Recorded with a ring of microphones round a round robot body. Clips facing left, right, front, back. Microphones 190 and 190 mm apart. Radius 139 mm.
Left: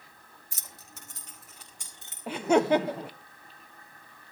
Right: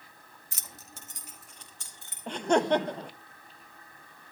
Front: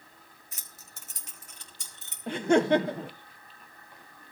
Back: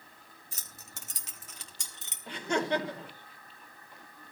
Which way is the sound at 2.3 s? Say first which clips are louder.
Left 2 dB, front 8 dB; 5° left.